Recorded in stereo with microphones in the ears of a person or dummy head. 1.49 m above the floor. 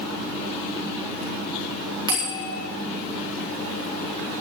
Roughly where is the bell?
Right.